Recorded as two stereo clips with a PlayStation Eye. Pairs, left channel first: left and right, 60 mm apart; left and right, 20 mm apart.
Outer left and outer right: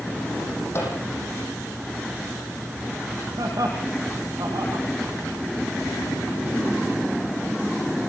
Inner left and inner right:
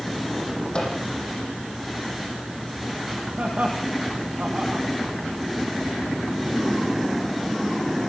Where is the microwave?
45° left (ahead or behind), 9.5 m.